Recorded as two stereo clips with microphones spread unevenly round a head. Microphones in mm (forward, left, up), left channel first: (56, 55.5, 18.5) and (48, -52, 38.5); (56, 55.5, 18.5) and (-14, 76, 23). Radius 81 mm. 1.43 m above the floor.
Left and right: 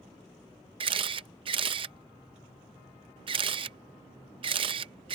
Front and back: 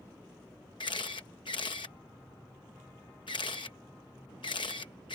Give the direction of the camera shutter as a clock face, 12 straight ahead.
2 o'clock.